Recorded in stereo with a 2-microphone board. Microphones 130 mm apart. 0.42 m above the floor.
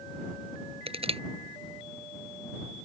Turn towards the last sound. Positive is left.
turn(degrees=-50)  # may be behind; listen again after turning